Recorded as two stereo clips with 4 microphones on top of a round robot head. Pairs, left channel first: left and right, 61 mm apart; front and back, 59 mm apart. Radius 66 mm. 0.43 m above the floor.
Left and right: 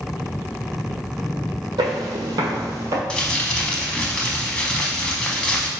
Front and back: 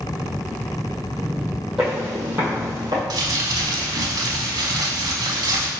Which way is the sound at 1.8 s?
95° right.